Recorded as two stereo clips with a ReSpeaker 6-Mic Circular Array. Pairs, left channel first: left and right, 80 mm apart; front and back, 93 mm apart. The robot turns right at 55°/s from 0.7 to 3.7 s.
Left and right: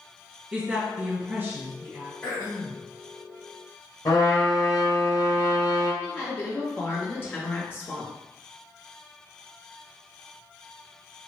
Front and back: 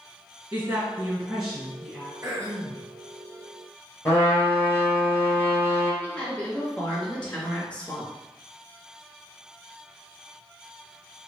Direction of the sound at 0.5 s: 140° right.